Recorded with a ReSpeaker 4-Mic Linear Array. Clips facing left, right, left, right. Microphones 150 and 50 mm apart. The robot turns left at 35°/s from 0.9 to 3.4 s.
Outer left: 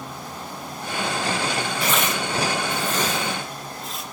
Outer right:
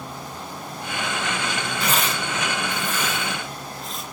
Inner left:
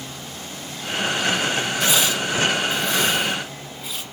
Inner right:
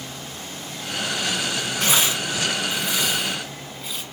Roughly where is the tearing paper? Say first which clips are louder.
Even, even; right.